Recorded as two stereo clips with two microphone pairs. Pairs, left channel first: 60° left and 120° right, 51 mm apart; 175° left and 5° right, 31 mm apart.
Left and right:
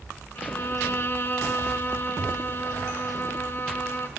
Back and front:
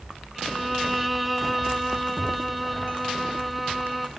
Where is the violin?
90° left, 1.1 m.